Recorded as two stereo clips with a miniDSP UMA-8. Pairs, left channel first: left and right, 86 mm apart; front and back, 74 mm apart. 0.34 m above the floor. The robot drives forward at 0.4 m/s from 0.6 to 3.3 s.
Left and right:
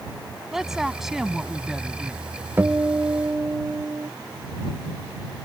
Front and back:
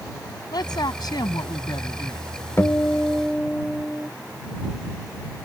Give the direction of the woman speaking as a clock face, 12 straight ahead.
12 o'clock.